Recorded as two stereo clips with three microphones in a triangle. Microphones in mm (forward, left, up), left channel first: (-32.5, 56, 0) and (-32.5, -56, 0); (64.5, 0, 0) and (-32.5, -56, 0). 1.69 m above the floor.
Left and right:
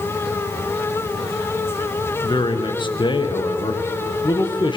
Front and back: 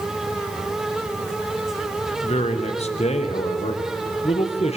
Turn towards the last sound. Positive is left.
turn(degrees=45)